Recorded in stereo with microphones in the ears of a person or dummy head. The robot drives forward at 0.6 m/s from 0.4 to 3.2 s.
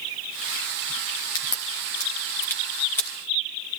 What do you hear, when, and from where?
1.4 s a crack: 20° left (ahead or behind), 1.4 m; by 3.1 s 10° left (ahead or behind), 2.5 m